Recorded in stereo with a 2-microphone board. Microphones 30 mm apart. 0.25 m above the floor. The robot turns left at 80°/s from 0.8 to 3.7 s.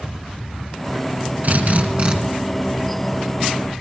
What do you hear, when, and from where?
1.4 s a drill: 80° right, 3 m; by 2.2 s 135° right, 3 m